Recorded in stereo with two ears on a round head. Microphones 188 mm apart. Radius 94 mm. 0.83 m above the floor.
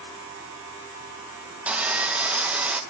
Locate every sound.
1.7 s sawing: 5° right (ahead or behind), 0.6 m